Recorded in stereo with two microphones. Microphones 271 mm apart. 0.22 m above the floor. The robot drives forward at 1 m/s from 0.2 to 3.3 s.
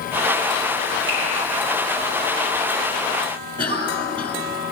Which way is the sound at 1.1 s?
45° right (ahead or behind).